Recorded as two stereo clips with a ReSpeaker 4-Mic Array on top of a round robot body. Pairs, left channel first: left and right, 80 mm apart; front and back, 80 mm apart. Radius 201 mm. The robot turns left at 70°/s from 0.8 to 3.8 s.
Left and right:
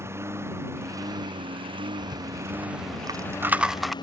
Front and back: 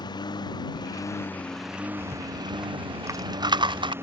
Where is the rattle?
50° right; by 3.9 s straight behind.